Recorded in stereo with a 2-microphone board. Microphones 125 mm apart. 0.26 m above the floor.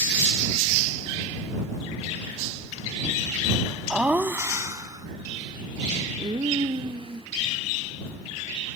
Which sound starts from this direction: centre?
Laughter, at 3.9 s.